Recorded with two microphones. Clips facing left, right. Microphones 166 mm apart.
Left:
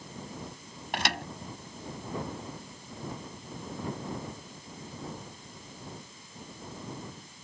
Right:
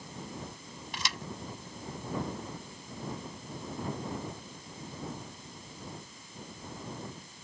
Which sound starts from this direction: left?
A thud, at 0.9 s.